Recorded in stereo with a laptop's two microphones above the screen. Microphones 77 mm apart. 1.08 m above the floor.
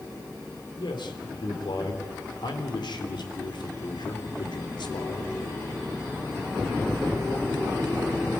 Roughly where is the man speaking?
Left.